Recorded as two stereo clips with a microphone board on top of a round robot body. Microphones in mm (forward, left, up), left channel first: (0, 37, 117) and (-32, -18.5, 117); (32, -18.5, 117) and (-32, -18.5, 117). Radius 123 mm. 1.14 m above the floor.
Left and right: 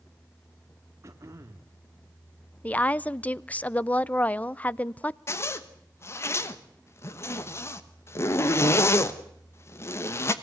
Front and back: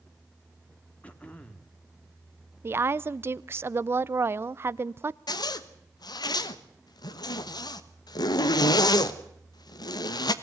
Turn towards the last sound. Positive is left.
turn(degrees=10)